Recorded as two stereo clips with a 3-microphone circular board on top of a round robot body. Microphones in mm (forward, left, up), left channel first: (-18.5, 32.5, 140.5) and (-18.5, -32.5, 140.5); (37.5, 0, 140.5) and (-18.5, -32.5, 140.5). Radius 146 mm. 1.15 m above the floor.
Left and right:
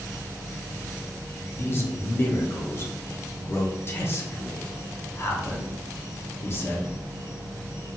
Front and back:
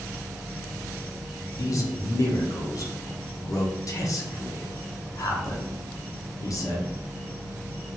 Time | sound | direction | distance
0.0 | an insect | 100° left | 1.8 m
1.6 | a man speaking | 45° left | 0.7 m